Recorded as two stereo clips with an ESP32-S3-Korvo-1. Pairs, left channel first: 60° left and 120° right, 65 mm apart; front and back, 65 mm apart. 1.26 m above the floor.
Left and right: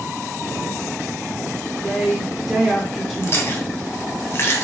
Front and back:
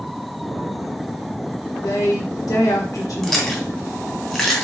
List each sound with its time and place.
1.8 s a woman speaking: 30° right, 1.2 m
3.2 s chewing: 80° left, 0.8 m